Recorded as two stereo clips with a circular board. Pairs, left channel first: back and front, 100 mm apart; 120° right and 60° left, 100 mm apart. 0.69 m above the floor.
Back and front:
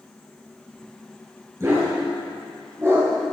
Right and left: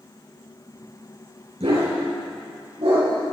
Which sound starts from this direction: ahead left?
A dog barking, at 1.6 s.